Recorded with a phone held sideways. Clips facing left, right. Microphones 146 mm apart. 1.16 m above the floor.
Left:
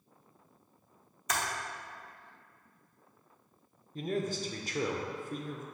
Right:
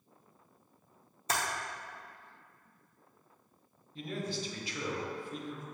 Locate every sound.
1.3 s typing on a keyboard: 30° right (ahead or behind), 0.8 m
4.0 s a man speaking: 45° left (ahead or behind), 0.6 m